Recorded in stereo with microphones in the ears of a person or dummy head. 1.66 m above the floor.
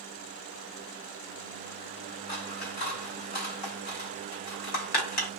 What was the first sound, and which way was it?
Scissors, 55° left (ahead or behind).